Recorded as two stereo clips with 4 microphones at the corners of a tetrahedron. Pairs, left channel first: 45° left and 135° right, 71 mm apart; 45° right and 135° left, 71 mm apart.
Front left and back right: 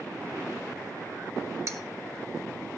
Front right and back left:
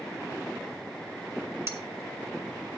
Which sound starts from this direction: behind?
Cutlery clinking, at 1.7 s.